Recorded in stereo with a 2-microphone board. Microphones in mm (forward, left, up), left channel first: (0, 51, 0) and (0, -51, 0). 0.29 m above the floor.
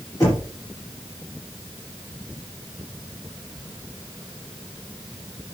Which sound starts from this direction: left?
Knocking, at 0.2 s.